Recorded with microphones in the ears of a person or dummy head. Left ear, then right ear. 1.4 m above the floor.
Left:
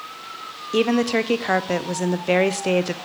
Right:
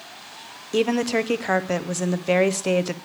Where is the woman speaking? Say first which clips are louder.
Left 2 dB; 5° left (ahead or behind), 0.7 m.